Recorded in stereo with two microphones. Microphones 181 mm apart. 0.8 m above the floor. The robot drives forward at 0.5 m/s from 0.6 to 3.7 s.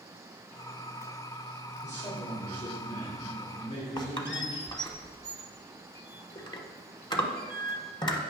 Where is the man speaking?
75° left (ahead or behind), 2 m; by 4.9 s 70° left (ahead or behind), 2 m.